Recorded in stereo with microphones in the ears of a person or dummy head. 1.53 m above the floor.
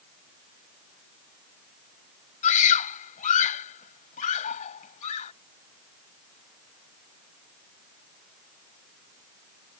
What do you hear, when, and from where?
2.4 s a scream: 45° left (ahead or behind)